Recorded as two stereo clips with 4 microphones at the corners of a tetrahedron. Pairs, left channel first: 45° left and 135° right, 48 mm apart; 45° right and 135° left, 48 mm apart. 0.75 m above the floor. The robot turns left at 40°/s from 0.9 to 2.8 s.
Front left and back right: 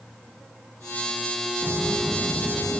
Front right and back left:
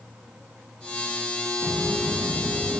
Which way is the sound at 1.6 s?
170° left.